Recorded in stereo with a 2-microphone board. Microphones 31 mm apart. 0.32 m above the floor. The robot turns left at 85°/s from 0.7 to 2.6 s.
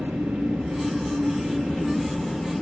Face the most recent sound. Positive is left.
turn(degrees=130)